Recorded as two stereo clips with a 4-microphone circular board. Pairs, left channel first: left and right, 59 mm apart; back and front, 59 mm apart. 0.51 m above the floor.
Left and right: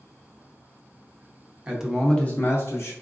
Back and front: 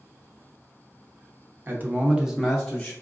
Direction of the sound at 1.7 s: 30° right.